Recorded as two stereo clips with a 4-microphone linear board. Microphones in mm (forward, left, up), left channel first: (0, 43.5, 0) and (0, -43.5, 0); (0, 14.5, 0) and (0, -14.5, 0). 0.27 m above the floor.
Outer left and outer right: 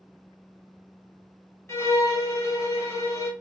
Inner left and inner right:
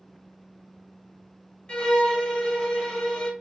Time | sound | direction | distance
1.7 | a violin | 30° left (ahead or behind) | 1.0 m